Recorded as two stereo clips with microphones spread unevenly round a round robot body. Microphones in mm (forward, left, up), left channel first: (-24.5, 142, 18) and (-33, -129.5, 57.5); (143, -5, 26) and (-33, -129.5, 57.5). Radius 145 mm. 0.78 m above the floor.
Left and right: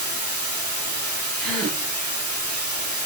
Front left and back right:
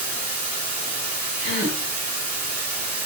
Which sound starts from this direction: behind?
A gasp, at 1.4 s.